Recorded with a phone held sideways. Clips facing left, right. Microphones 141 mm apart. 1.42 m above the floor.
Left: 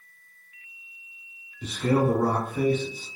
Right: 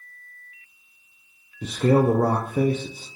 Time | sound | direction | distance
1.6 | a man speaking | 50° right (ahead or behind) | 0.5 m